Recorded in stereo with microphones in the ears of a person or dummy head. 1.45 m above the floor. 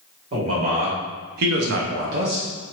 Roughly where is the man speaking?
Right.